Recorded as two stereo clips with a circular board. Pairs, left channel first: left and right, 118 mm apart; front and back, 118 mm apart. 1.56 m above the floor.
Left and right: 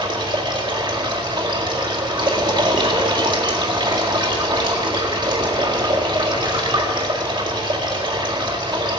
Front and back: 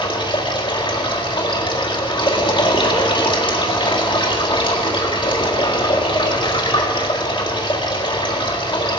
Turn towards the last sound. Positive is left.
turn(degrees=-45)